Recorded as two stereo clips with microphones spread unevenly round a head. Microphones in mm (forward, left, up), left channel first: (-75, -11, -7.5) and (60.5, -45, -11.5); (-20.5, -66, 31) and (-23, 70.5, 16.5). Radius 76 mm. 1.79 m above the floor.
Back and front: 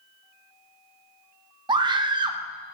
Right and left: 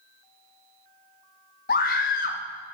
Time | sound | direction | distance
1.7 | a scream | 70° right | 0.5 m